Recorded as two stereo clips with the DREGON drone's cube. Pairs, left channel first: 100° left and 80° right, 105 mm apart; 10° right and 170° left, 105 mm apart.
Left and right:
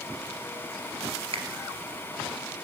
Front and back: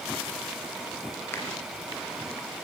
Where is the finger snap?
75° right, 2.5 m.